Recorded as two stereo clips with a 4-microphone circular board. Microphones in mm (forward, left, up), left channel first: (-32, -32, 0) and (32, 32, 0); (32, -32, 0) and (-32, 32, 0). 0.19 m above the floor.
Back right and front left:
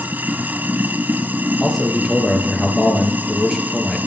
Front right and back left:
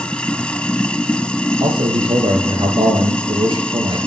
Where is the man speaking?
135° left, 4 m.